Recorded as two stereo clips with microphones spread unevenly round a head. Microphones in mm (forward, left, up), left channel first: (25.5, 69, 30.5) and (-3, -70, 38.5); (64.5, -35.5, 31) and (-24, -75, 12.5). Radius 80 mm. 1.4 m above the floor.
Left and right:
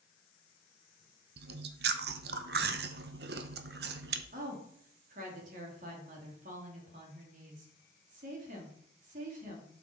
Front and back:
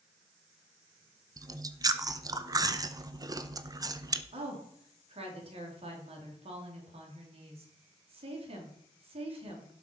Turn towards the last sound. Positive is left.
turn(degrees=-140)